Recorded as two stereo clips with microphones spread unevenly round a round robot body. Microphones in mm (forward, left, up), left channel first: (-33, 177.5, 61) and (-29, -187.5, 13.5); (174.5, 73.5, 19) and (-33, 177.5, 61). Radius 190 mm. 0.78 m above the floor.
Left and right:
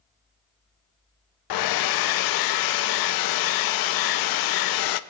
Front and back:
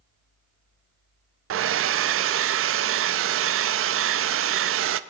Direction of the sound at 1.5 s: 120° left.